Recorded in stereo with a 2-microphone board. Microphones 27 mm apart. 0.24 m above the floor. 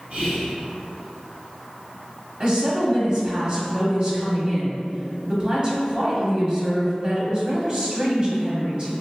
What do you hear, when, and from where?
0.1 s whispering: 55° right (ahead or behind), 1.6 m
2.4 s a woman speaking: 35° right (ahead or behind), 1.1 m